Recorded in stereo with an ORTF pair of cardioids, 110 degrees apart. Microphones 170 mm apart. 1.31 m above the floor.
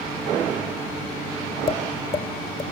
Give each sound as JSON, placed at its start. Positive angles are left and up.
{"t": 1.7, "sound": "tapping", "azimuth_deg": 35, "distance_m": 2.5}